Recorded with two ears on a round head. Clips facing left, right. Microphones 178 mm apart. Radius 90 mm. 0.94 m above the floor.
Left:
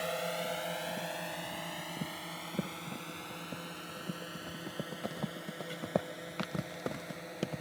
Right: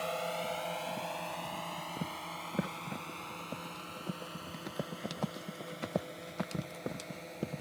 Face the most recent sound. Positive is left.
turn(degrees=10)  # may be behind; listen again after turning